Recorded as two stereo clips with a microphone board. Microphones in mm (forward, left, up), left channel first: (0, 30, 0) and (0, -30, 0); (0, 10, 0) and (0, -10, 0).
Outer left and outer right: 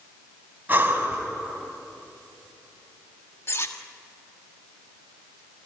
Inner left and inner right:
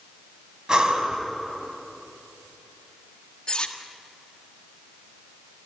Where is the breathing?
35° right (ahead or behind), 2.5 m.